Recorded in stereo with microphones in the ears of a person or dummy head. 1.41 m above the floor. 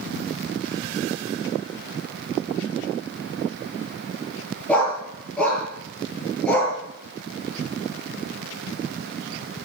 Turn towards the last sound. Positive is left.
turn(degrees=5)  # may be behind; listen again after turning